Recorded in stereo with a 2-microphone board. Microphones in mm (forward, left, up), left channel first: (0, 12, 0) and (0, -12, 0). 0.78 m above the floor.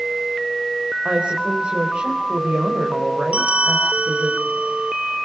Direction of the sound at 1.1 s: 55° right (ahead or behind).